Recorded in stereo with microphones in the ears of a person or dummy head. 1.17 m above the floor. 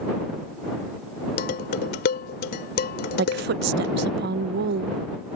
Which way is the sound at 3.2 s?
55° right (ahead or behind).